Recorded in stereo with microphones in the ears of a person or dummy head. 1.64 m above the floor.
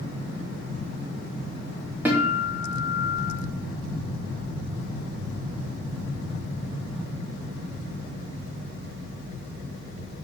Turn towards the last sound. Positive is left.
turn(degrees=-5)  # may be behind; listen again after turning